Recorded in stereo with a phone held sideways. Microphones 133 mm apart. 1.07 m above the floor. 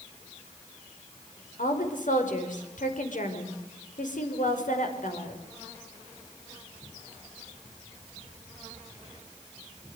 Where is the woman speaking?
70° left (ahead or behind), 5 m.